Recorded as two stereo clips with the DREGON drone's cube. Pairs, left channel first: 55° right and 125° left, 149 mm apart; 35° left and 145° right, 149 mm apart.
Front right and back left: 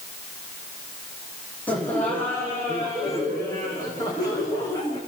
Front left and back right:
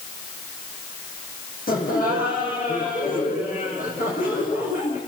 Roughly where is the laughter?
Ahead left.